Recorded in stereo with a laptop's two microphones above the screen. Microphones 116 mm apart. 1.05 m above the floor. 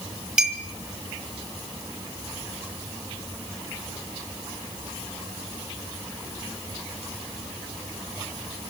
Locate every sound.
0.4 s a clink: 10° right (ahead or behind), 3 m